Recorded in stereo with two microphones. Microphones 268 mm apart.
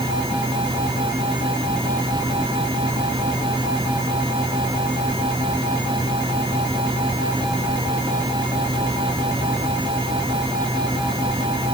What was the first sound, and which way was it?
Only background noise.